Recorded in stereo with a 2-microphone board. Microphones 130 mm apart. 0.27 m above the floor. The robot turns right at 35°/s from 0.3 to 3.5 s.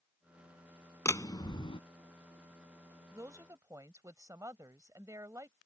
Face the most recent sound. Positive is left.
turn(degrees=-25)  # may be behind; listen again after turning